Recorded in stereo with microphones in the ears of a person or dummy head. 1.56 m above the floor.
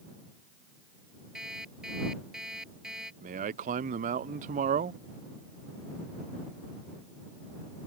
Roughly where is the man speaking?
Right.